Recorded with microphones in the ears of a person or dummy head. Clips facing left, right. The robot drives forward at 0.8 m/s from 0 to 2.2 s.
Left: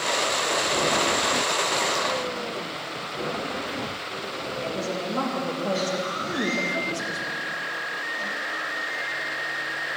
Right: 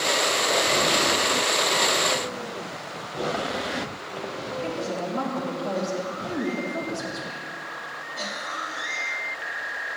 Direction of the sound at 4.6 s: 50° left (ahead or behind).